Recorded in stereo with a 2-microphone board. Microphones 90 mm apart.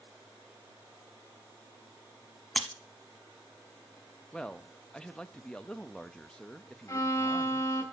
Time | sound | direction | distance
2.6 | breaking glass | 10° left (ahead or behind) | 0.8 m
4.3 | a man speaking | 10° left (ahead or behind) | 0.6 m
6.9 | a violin | 30° left (ahead or behind) | 1.1 m